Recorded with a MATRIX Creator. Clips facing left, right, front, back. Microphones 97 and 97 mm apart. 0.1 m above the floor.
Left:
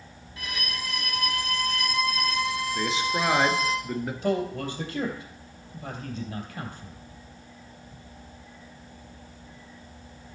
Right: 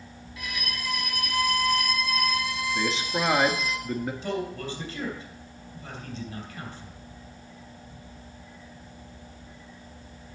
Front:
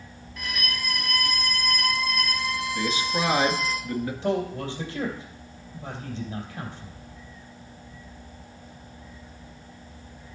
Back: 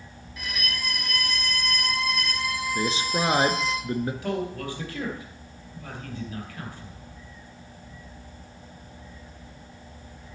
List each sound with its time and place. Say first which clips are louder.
0.4 s a violin: left 1 dB, front 1 dB; 95° left, 1.8 m
2.8 s a man speaking: left 1 dB, back 1 dB; straight behind, 1.2 m
4.2 s a man speaking: left 4 dB, front 3 dB; 65° left, 2.5 m